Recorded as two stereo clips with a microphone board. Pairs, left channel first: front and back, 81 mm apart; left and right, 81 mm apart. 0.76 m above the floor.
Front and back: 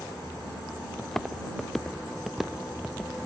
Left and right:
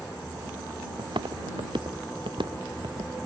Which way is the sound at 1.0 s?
85° right.